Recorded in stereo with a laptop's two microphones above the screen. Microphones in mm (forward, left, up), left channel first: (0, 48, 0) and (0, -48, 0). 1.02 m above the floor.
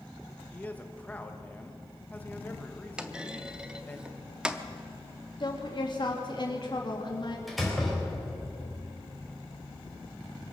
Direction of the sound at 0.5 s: 15° left (ahead or behind).